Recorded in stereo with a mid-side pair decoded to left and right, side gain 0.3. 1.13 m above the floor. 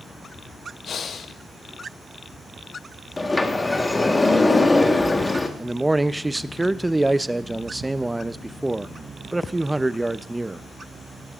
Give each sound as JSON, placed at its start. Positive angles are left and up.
{"t": 0.8, "sound": "breathing", "azimuth_deg": 70, "distance_m": 0.8}
{"t": 3.2, "sound": "a sliding door", "azimuth_deg": 30, "distance_m": 1.4}
{"t": 5.6, "sound": "a man speaking", "azimuth_deg": -20, "distance_m": 0.6}